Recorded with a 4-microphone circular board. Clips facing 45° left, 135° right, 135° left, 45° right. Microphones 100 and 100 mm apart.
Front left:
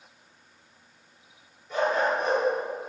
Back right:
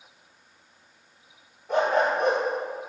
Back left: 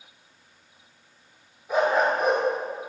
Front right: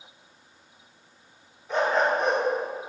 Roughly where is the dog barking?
Behind right.